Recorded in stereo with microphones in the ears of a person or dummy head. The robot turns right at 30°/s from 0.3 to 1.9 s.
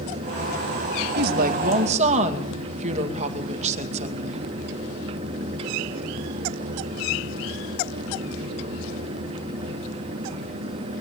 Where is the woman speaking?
65° right (ahead or behind), 2.5 m; by 4.4 s 40° right (ahead or behind), 2.5 m.